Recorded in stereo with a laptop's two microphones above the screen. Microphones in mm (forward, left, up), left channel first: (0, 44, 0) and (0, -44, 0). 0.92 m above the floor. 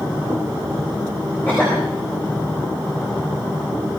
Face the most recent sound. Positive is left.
turn(degrees=20)  # may be behind; listen again after turning